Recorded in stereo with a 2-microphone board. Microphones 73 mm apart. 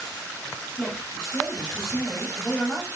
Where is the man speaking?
Centre (ahead or behind), 1.3 m.